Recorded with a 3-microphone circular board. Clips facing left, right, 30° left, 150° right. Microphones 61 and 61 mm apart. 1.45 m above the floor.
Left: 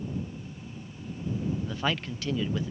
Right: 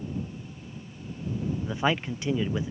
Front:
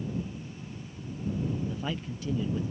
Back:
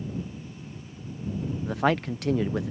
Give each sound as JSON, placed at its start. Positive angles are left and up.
{"t": 1.6, "sound": "a man speaking", "azimuth_deg": -160}